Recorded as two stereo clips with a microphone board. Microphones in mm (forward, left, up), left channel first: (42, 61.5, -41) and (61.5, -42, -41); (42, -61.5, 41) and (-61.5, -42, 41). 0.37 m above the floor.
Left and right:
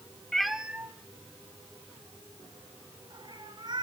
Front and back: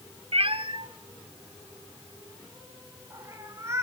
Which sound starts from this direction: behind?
A cat meowing, at 0.3 s.